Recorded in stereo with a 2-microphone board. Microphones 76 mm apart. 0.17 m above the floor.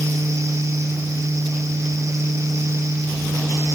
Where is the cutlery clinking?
I don't hear cutlery clinking.